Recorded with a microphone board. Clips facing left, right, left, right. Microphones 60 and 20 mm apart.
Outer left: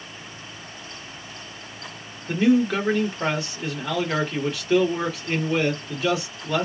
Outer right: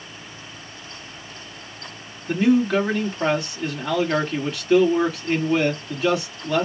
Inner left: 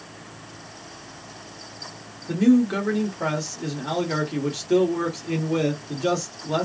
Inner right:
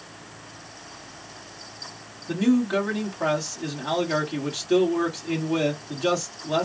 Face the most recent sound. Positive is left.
turn(degrees=0)  # may be behind; listen again after turning